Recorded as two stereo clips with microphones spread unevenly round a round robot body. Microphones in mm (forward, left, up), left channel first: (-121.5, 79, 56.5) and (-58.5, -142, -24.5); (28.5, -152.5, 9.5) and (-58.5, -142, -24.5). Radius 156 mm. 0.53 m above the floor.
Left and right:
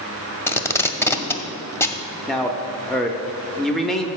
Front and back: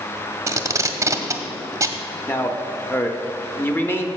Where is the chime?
No chime in this recording.